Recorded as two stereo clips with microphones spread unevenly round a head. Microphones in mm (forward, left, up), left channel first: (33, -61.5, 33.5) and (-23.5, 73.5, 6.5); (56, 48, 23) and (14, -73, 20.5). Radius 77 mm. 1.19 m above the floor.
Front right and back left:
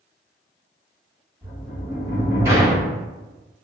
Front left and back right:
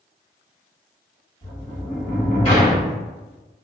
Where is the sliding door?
35° left, 1.1 m.